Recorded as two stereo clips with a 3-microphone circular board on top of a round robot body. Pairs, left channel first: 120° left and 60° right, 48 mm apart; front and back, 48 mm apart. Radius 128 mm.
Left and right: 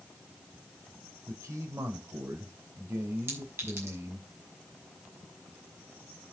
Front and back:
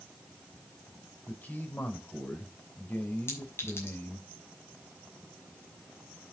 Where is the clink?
30° right, 5.5 m.